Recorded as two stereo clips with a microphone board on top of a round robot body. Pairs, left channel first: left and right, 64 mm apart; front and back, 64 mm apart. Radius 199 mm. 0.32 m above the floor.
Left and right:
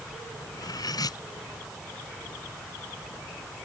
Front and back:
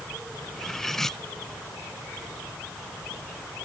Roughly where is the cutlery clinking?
Left.